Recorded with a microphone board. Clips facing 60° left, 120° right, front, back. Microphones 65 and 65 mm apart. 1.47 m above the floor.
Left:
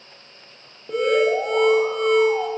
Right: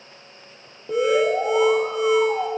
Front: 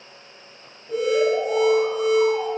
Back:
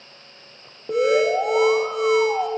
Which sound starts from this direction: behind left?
An alarm, at 0.9 s.